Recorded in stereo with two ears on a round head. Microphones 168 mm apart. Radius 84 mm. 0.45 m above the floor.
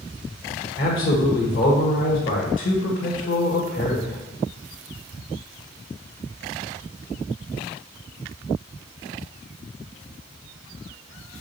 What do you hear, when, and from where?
0.8 s a man speaking: 45° left (ahead or behind), 1.5 m